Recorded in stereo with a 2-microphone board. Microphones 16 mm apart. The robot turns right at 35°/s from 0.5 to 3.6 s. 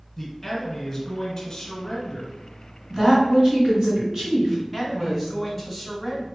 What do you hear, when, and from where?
0.2 s a man speaking: centre (ahead or behind), 1.2 m; by 2.3 s 25° left (ahead or behind), 1.2 m
2.9 s a woman speaking: 30° right (ahead or behind), 2.0 m; by 5.5 s 40° right (ahead or behind), 2.0 m
4.5 s a man speaking: 5° right (ahead or behind), 1.3 m